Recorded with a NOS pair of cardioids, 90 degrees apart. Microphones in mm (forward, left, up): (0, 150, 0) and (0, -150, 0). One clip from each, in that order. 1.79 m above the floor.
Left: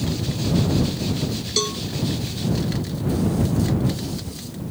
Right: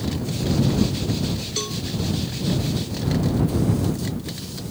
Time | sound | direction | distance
1.6 | a cowbell | 40° left | ?